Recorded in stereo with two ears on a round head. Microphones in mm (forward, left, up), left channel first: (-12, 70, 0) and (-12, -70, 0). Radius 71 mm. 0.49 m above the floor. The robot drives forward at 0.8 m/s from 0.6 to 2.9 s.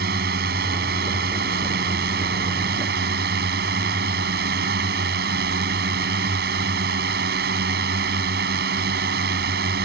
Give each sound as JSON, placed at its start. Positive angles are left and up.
{"t": 0.0, "sound": "a drone", "side_deg": -65}